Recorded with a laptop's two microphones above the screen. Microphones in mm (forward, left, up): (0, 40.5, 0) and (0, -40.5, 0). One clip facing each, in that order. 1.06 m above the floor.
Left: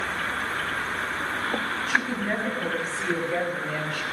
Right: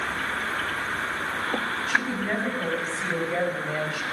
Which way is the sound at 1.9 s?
Centre (ahead or behind).